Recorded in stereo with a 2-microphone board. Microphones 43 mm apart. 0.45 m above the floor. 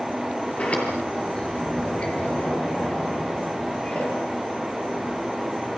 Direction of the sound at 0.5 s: 30° left (ahead or behind).